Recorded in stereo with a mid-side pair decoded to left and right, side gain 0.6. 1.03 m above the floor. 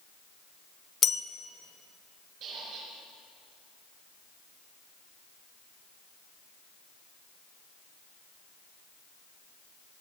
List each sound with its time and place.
1.0 s a bell: 40° left, 0.7 m
2.4 s a squeak: 60° right, 5 m